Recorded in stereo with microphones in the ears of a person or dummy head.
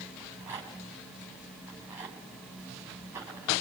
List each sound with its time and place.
0.2 s a rattle: 10° right (ahead or behind), 4 m